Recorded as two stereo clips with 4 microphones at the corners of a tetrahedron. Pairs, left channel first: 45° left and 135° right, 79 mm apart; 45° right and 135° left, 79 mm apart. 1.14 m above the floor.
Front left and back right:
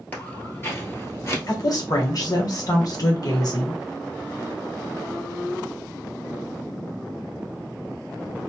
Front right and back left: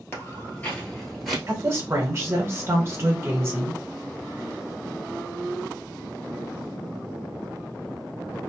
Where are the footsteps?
5° right, 1.4 m; by 1.4 s 45° left, 1.3 m.